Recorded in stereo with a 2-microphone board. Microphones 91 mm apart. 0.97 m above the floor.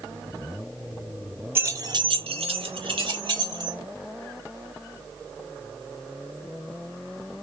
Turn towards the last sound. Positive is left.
turn(degrees=-45)  # may be behind; listen again after turning